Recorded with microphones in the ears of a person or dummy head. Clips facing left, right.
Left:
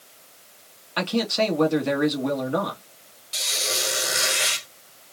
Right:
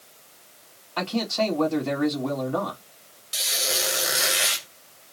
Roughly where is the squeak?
Centre.